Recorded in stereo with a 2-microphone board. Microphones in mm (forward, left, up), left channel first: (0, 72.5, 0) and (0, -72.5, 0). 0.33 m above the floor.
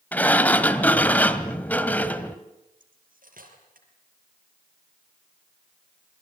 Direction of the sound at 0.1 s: 10° left (ahead or behind).